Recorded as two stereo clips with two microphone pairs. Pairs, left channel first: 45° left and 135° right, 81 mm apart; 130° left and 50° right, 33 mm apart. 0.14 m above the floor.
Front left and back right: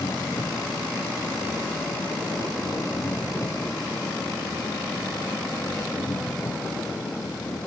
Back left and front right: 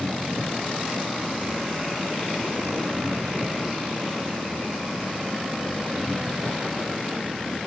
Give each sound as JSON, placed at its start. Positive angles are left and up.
{"t": 0.0, "sound": "an engine running", "azimuth_deg": -15}